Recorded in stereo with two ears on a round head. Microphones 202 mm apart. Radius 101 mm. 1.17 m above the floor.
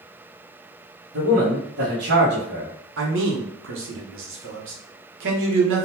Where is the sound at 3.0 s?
60° right (ahead or behind), 0.8 m.